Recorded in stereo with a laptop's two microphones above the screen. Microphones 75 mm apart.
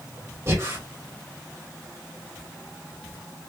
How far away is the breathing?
About 2.5 m.